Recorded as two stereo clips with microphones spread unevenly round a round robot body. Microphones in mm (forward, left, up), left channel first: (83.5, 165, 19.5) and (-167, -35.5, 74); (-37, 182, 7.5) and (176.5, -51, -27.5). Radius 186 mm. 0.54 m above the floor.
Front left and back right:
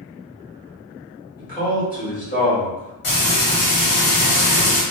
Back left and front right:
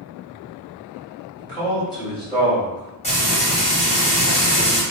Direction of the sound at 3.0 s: 65° left.